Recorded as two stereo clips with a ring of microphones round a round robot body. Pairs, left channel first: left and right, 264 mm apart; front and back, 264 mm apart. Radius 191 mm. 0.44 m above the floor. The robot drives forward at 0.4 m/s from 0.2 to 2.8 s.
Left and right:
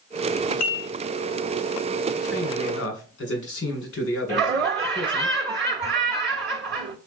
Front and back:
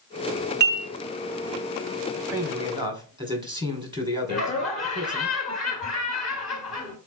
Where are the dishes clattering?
130° left, 1.6 m; by 0.9 s 135° left, 1.7 m.